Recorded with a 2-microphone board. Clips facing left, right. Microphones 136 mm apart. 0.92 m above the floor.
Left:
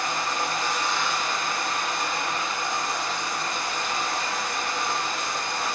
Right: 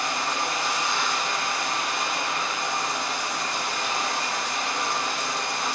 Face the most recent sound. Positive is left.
turn(degrees=-75)  # may be behind; listen again after turning